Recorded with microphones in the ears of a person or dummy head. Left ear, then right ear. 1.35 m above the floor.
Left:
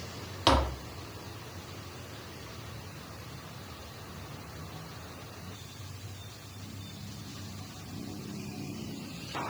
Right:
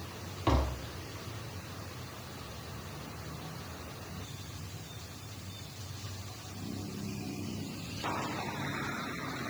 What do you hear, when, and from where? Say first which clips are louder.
0.5 s tapping: left 6 dB; 55° left (ahead or behind), 1.5 m